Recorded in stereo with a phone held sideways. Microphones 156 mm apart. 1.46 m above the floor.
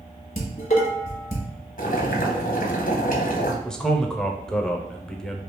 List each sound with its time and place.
0.4 s dishes clattering: 45° left (ahead or behind), 1.1 m
1.8 s boiling: 60° left (ahead or behind), 0.7 m
3.6 s a man speaking: 5° left (ahead or behind), 0.6 m